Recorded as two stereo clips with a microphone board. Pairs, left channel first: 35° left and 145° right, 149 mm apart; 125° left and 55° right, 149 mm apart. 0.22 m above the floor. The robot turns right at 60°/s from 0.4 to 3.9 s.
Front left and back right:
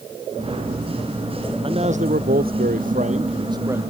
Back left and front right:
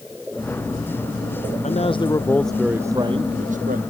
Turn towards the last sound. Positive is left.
turn(degrees=-65)